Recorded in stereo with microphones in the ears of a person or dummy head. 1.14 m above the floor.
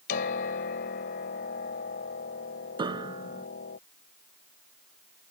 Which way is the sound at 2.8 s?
25° right (ahead or behind).